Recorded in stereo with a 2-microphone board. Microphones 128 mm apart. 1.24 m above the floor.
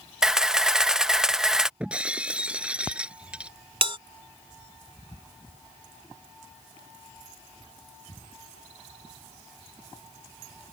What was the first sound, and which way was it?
A camera shutter, 5° right (ahead or behind).